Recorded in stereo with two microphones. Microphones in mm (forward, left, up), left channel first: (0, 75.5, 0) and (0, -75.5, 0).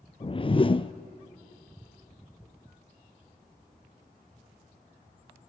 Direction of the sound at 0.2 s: 35° left (ahead or behind).